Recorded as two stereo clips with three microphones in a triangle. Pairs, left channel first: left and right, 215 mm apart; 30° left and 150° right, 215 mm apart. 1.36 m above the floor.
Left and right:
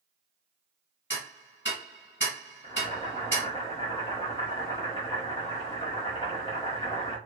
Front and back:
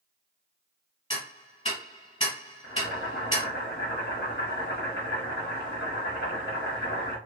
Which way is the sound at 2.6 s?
35° left.